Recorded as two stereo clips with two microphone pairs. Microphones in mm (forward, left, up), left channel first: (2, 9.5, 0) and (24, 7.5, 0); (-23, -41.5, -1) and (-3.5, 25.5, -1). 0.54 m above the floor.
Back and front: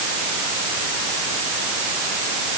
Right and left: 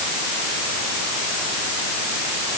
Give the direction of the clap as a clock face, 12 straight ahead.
No clap in this recording.